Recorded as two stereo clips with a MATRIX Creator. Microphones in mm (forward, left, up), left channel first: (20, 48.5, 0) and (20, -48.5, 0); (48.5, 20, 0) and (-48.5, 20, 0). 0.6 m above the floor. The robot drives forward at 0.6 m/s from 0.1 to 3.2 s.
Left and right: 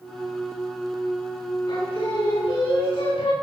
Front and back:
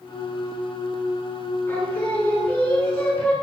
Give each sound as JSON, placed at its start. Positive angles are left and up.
{"t": 1.7, "sound": "singing", "azimuth_deg": 70, "distance_m": 8.5}